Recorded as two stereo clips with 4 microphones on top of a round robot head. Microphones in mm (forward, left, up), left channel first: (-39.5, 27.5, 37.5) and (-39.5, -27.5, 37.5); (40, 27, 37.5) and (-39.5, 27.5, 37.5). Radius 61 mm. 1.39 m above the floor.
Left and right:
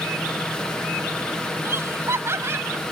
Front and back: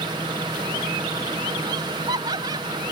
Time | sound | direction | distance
1.6 | laughter | 130° right | ?